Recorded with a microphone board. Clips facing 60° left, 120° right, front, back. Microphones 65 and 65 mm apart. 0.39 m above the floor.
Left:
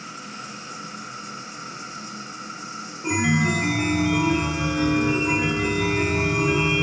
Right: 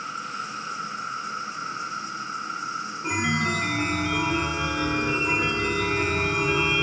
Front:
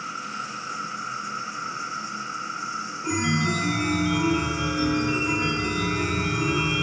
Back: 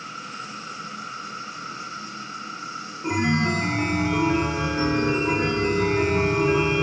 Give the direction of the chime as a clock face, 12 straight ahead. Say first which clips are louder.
Left 4 dB, back 3 dB; 7 o'clock.